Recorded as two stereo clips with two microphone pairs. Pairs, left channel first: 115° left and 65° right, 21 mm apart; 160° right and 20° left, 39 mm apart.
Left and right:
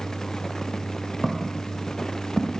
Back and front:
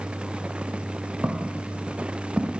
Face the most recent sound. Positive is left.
turn(degrees=-40)